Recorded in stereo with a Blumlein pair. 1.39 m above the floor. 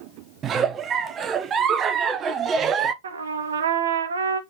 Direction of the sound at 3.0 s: 65° right.